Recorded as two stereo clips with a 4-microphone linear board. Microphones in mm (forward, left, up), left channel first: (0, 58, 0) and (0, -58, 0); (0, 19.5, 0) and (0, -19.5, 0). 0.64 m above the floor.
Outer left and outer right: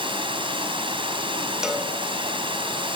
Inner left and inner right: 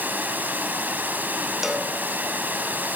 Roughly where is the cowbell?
Centre.